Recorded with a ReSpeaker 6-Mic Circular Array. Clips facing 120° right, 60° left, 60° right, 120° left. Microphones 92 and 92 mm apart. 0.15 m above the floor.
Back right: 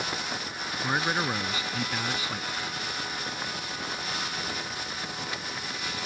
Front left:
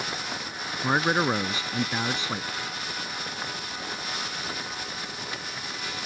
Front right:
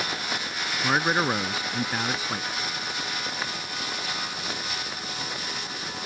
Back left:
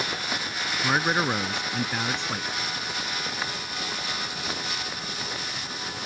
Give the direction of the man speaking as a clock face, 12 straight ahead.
11 o'clock.